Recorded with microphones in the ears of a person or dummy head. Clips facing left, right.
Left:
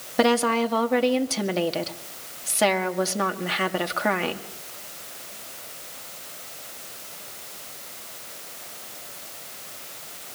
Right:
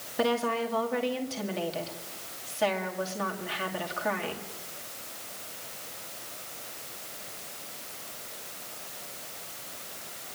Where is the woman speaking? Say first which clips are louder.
Left 7 dB; 70° left (ahead or behind), 2.0 m.